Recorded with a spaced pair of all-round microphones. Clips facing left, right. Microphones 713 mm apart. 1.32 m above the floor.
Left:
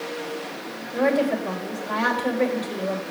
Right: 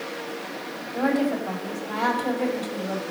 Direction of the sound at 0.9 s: 80° left.